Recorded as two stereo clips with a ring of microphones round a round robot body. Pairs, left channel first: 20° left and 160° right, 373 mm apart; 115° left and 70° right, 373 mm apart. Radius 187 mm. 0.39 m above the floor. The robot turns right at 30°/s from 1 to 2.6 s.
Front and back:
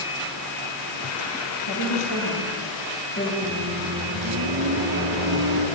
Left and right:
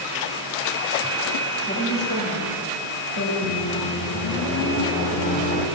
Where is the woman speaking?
50° left, 6 m; by 3.3 s 80° left, 6 m.